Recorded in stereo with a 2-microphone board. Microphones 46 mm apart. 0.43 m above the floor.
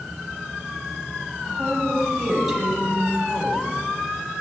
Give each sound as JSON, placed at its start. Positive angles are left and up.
{"t": 1.4, "sound": "a woman speaking", "side_deg": -5, "distance_m": 3.0}